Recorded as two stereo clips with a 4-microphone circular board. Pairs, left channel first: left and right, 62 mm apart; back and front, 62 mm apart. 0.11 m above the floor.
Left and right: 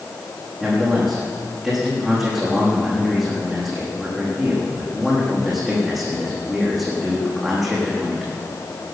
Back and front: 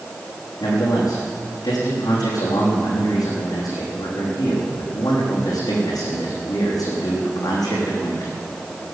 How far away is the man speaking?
About 6 m.